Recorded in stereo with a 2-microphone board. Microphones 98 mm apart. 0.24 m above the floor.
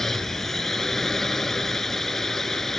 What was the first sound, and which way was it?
A drone, 5° left (ahead or behind).